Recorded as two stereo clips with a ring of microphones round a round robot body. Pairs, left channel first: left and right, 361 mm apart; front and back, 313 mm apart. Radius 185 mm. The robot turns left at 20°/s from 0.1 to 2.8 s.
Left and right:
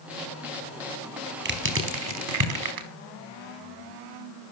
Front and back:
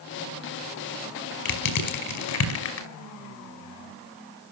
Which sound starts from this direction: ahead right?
Crushing, at 1.4 s.